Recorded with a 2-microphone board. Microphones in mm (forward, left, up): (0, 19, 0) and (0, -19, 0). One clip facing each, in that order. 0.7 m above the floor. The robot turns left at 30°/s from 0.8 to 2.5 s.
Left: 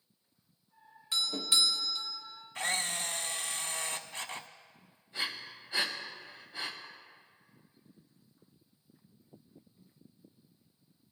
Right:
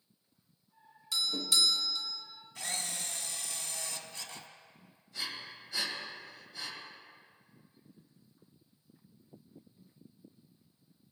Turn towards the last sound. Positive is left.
turn(degrees=25)  # may be behind; listen again after turning